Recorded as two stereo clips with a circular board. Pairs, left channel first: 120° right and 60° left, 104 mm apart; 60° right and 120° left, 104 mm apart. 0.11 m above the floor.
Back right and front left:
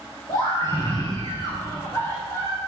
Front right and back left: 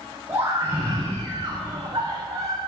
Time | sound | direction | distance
0.3 | a scream | 175° right | 8 m